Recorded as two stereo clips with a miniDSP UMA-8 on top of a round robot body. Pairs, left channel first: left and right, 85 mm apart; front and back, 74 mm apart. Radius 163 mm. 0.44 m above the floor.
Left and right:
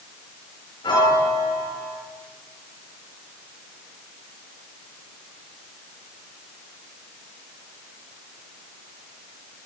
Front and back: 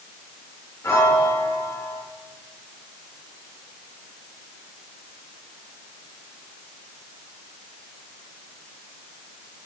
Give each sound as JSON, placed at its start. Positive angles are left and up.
{"t": 0.8, "sound": "a piano", "azimuth_deg": 55, "distance_m": 9.0}